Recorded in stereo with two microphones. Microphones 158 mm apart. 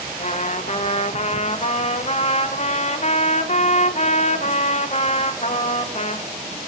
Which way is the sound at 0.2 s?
45° left (ahead or behind).